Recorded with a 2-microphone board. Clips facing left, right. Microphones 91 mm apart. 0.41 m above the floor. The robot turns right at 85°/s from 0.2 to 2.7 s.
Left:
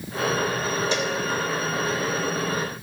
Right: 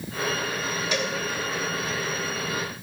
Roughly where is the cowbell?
Left.